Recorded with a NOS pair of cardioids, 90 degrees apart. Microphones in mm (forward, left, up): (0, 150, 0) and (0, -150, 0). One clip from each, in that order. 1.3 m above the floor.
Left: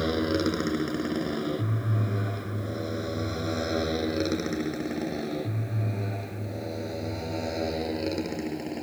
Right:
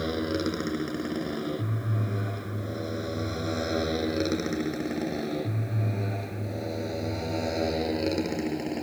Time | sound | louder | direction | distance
0.0 | a motorcycle | left 3 dB | 20° left | ?